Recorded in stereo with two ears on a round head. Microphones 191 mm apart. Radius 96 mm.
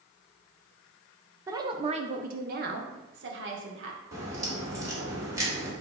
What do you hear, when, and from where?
1.5 s a woman speaking: 15° right (ahead or behind), 0.7 m; by 4.0 s 60° right (ahead or behind), 1.5 m
4.1 s a crack: 15° right (ahead or behind), 2 m